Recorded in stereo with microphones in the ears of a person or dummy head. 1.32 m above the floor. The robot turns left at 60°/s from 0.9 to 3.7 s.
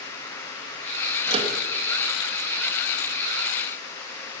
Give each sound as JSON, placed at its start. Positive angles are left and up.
{"t": 1.3, "sound": "a microwave", "side_deg": -30, "distance_m": 1.5}